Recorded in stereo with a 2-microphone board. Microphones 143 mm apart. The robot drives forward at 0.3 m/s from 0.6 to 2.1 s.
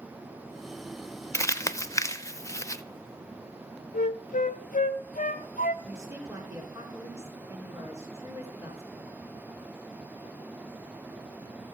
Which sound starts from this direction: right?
A woman speaking, at 5.8 s.